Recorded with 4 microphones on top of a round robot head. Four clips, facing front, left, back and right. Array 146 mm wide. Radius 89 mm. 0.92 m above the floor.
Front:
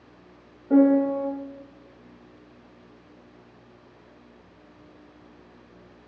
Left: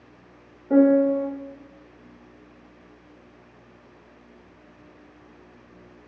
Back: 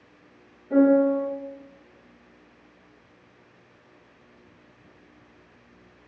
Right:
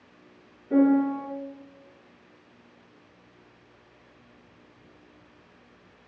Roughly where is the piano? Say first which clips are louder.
Left 4 dB, even; ahead left.